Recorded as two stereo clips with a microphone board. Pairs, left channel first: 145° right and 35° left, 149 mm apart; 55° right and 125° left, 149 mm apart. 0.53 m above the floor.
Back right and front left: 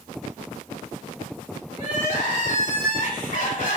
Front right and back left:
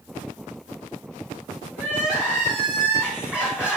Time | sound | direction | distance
1.8 | crying | 155° right | 3 m